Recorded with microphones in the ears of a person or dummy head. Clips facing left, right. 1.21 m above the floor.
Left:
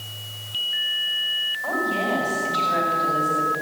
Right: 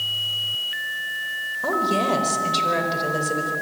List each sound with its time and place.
1.6 s a woman speaking: 60° right (ahead or behind), 4.5 m